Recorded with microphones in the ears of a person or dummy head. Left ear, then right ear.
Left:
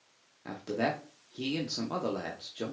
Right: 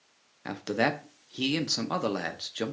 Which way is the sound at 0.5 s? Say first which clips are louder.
Right 4 dB; 40° right (ahead or behind).